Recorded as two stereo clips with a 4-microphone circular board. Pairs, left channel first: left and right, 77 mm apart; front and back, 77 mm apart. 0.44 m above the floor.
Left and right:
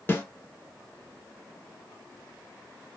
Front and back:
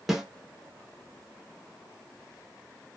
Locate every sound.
0.1 s a snare drum: 95° left, 0.6 m